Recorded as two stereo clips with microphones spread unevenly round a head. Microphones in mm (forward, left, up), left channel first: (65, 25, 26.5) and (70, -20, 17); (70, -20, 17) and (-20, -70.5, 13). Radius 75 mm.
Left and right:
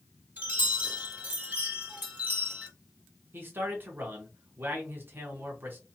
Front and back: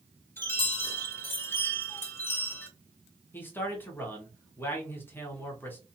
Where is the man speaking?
40° right, 0.9 m.